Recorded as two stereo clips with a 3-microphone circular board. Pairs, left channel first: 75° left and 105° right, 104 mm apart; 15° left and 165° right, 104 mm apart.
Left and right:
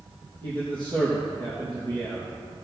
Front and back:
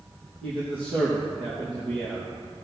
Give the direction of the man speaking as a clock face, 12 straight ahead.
5 o'clock.